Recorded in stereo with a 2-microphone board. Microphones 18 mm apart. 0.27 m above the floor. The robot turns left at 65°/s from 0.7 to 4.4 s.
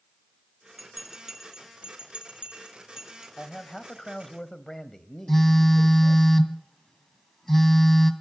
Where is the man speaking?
130° left, 1.4 m; by 6.3 s 60° left, 1.4 m.